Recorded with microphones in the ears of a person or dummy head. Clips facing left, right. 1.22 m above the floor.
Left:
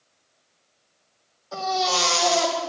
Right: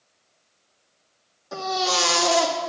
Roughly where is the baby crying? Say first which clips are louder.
Left 1 dB; right.